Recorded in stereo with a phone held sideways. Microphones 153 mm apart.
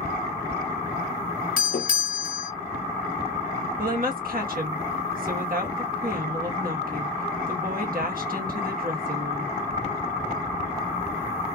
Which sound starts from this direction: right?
A woman speaking, at 3.8 s.